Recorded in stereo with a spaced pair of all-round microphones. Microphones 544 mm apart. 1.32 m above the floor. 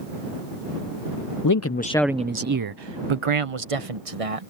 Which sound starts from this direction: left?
A man speaking, at 1.4 s.